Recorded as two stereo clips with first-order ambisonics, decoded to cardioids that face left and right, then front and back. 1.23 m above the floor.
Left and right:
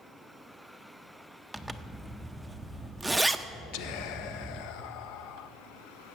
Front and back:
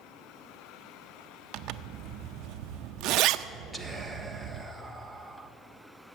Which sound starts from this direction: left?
Whispering, at 3.7 s.